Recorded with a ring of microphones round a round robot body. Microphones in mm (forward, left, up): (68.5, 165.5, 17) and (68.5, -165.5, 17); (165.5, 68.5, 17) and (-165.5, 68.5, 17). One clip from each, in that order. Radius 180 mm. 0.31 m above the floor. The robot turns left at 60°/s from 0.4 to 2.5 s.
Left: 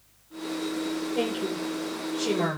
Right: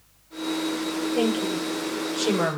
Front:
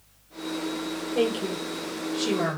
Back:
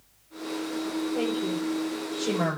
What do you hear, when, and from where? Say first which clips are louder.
1.1 s a woman speaking: right 5 dB, front 6 dB; 15° right, 8.5 m; by 2.6 s 95° right, 8.5 m